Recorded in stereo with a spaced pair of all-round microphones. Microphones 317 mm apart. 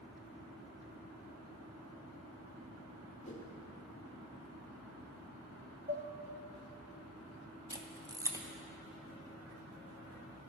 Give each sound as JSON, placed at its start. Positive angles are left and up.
{"t": 3.2, "sound": "a whoosh", "side_deg": 40, "distance_m": 1.5}
{"t": 5.9, "sound": "dishes clattering", "side_deg": -35, "distance_m": 0.7}
{"t": 7.7, "sound": "a camera shutter", "side_deg": -10, "distance_m": 0.7}